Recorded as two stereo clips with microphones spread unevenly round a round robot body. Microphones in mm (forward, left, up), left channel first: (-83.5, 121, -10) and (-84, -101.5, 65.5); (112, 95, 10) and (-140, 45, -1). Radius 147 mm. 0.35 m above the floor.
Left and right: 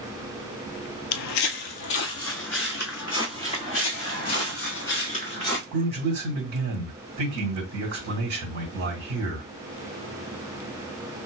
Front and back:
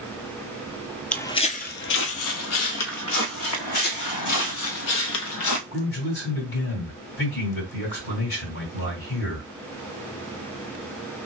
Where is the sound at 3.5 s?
70° left, 1.3 m; by 5.6 s straight ahead, 1.0 m.